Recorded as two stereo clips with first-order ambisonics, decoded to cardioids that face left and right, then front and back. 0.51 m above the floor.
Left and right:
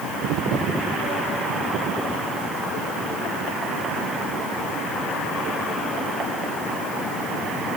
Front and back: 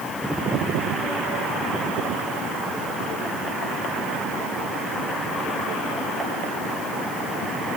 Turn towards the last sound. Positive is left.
No sound to turn to.